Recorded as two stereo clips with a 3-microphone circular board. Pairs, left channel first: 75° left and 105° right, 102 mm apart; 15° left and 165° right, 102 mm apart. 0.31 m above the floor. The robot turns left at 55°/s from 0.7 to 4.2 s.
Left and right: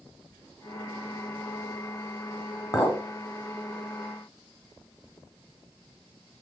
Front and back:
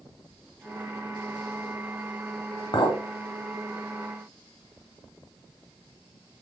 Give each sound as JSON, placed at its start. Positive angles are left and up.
{"t": 2.7, "sound": "a clink", "azimuth_deg": 25, "distance_m": 0.8}